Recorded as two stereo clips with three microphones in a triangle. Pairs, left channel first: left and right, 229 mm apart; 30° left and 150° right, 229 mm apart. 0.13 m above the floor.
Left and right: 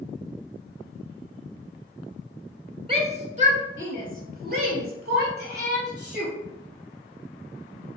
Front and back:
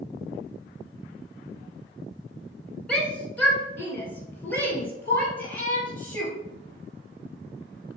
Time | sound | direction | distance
2.9 | a shout | 50° right | 1.4 m